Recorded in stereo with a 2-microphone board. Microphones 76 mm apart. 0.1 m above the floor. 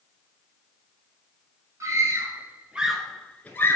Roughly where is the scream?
Right.